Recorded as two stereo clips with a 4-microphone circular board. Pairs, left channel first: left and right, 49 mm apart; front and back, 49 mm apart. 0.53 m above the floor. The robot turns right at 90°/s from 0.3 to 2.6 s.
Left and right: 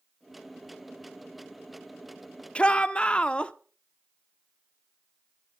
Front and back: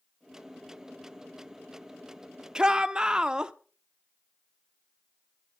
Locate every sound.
2.5 s a shout: 125° left, 0.7 m